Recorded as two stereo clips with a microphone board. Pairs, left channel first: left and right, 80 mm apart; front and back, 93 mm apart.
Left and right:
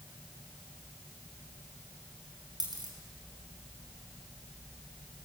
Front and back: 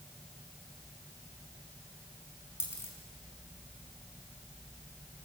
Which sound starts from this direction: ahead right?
A dropped coin, at 2.6 s.